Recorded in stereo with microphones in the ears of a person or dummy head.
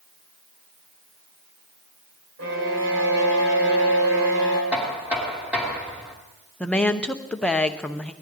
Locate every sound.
2.4 s a violin: 75° right (ahead or behind), 3 m
4.7 s knocking: 10° right (ahead or behind), 2.5 m
6.6 s a woman speaking: 5° left (ahead or behind), 0.7 m